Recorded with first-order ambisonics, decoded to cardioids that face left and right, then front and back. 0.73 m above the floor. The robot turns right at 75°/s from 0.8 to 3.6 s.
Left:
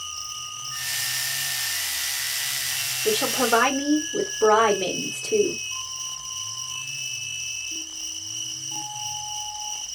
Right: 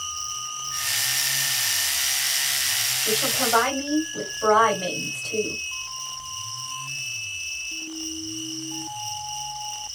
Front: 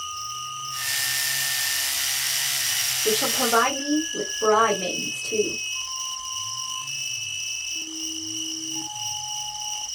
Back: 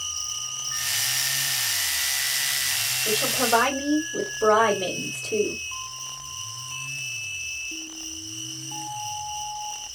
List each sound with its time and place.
0.0 s an insect: 165° right, 3 m; by 10.0 s 45° left, 3 m
3.0 s a woman speaking: 60° left, 1.8 m; by 5.6 s 100° left, 1.8 m